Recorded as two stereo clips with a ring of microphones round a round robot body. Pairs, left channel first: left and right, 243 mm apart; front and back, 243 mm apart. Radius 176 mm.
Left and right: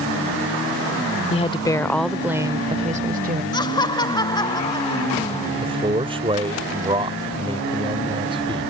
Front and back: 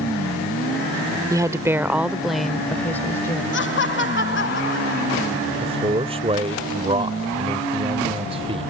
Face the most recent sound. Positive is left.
turn(degrees=-135)